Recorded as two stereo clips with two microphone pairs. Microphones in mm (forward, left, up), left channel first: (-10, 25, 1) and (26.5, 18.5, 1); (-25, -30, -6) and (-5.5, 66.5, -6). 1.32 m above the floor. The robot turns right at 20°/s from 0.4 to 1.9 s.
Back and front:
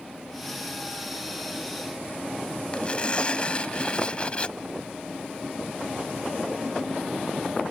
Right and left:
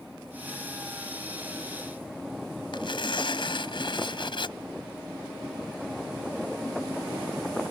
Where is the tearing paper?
130° right.